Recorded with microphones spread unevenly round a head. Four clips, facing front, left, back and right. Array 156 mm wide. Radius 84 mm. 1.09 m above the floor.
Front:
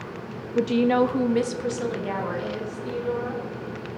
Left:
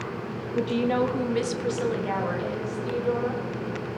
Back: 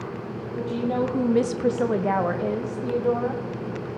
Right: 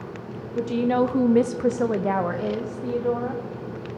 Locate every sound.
0.6 s a woman speaking: 15° left, 0.7 m; by 3.4 s 140° right, 2 m